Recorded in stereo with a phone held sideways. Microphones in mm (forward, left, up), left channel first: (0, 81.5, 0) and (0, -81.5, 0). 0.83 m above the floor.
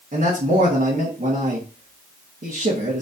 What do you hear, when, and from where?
0.1 s a man speaking: 50° right (ahead or behind), 1.4 m